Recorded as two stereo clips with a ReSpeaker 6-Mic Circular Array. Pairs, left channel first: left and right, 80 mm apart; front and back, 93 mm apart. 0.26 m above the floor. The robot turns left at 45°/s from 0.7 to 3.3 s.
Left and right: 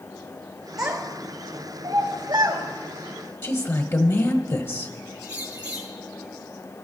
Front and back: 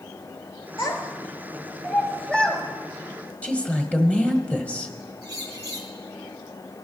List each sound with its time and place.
0.8 s a child speaking: 5° right, 3.5 m; by 2.6 s 90° right, 3.5 m
3.4 s a woman speaking: 65° left, 1.2 m
5.2 s a bird: 130° right, 2.5 m